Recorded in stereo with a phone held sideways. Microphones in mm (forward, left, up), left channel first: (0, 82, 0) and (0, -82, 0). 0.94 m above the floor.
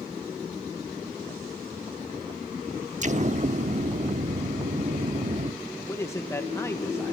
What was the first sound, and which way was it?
An explosion, 50° right (ahead or behind).